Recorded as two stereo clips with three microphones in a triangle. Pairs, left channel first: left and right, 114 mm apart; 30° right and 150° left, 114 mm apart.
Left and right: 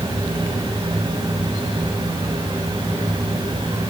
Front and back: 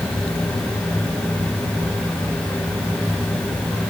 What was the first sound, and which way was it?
Only background noise.